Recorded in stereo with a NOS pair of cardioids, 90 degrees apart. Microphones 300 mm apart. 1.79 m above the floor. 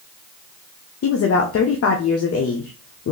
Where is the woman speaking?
45° left, 0.7 m.